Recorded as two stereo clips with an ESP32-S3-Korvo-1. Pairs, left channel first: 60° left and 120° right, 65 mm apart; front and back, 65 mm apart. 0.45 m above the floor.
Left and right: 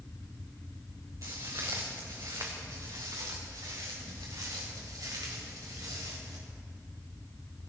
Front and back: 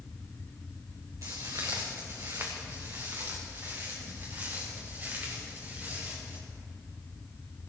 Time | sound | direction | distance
1.2 | footsteps | 145° right | 3 m